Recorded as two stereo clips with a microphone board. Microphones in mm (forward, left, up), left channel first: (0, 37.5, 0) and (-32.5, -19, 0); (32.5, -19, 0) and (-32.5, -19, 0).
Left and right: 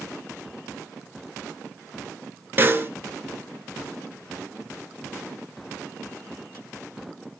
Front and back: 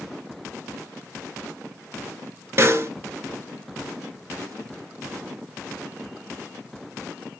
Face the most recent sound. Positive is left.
turn(degrees=-160)